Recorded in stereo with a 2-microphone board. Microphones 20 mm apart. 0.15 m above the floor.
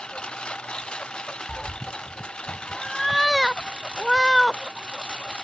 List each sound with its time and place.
0.0 s a lawn mower: 55° left (ahead or behind)
1.5 s a cat meowing: 5° right (ahead or behind)